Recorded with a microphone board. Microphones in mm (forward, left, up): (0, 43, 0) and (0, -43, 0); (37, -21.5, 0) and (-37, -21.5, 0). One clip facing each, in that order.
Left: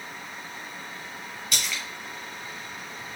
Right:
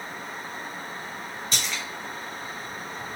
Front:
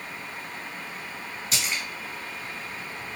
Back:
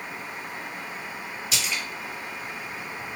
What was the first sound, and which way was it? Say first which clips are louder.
A splash: even, even; 40° right.